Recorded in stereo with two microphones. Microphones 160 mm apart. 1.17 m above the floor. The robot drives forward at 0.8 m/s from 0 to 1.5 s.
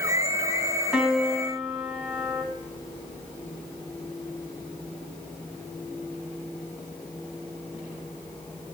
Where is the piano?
5° right (ahead or behind), 1.7 m.